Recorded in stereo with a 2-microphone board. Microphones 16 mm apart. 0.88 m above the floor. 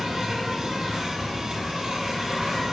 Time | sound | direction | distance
0.0 | an insect | 65° right (ahead or behind) | 0.9 m